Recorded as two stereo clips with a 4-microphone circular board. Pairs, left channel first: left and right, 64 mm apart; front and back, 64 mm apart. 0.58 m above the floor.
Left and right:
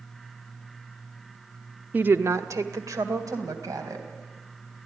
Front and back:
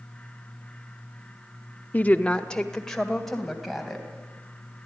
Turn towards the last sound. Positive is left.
turn(degrees=-90)